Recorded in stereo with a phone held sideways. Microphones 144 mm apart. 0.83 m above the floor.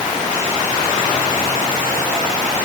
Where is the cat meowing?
I don't hear a cat meowing.